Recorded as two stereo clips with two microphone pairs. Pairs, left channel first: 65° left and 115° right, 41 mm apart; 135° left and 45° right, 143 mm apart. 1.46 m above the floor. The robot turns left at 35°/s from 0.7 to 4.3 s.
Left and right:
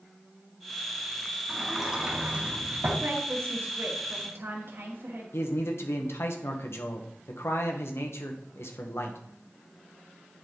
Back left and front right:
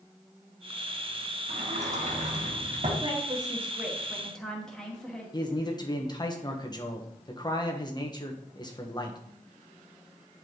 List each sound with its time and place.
1.5 s a sliding door: 20° right, 2.5 m; by 2.9 s 70° right, 2.5 m
3.0 s a woman speaking: 95° right, 2 m; by 5.2 s 140° right, 2 m
5.3 s a man speaking: 75° left, 1.5 m